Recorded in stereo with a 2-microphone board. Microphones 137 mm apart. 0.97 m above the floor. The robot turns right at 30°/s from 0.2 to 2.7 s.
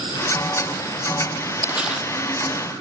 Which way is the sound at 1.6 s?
15° right (ahead or behind).